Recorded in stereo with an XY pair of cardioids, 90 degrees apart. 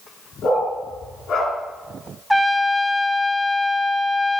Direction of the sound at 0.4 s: 70° left.